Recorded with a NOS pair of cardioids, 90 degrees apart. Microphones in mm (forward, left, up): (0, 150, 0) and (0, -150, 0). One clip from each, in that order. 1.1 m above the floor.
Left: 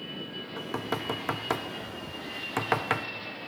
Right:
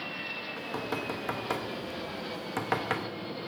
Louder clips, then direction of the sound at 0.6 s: Left 5 dB; 20° left.